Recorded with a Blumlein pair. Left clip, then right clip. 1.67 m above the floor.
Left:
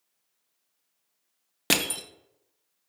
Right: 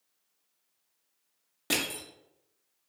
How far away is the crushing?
About 0.5 m.